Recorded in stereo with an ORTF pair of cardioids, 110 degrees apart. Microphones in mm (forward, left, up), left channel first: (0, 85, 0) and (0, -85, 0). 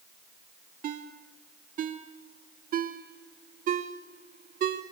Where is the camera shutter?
No camera shutter in this recording.